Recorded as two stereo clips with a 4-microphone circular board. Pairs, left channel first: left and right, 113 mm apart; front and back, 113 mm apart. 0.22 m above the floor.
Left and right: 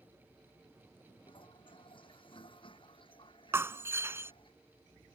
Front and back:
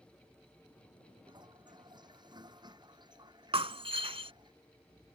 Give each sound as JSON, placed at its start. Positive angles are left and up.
{"t": 1.3, "sound": "a toilet flushing", "azimuth_deg": 130}
{"t": 3.5, "sound": "breaking glass", "azimuth_deg": -155}